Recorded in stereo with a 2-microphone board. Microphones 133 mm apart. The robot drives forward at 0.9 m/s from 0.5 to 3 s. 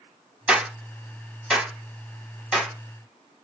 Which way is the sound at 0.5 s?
10° right (ahead or behind).